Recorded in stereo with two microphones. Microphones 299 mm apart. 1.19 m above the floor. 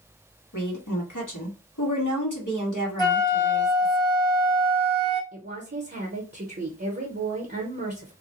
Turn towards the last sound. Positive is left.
turn(degrees=-30)  # may be behind; listen again after turning